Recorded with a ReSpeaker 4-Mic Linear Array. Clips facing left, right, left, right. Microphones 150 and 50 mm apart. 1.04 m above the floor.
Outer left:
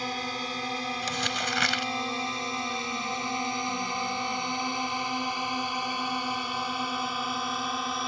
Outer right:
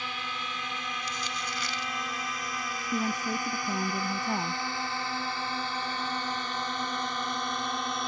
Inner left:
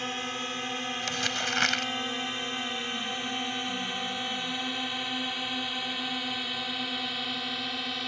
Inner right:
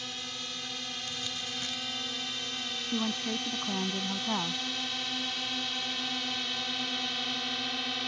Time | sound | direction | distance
0.0 | a drone | 40° left (ahead or behind) | ?
1.0 | crumpling | 75° left (ahead or behind) | ?
2.9 | a woman speaking | 85° right | ?